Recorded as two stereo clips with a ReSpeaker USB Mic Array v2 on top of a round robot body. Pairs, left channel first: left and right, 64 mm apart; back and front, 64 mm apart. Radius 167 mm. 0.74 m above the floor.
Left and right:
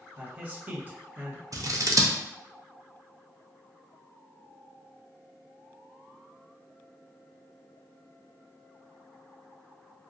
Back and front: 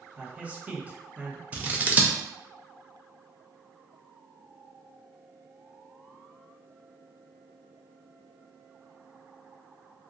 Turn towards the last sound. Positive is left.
turn(degrees=-65)